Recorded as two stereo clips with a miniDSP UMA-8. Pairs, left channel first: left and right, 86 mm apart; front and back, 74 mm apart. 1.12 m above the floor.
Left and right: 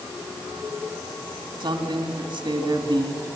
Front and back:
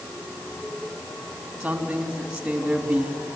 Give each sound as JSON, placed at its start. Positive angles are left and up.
{"t": 1.6, "sound": "a man speaking", "azimuth_deg": -100, "distance_m": 2.5}